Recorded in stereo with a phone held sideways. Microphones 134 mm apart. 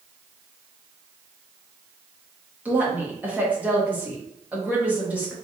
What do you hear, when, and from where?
2.6 s a woman speaking: 10° right (ahead or behind), 1.7 m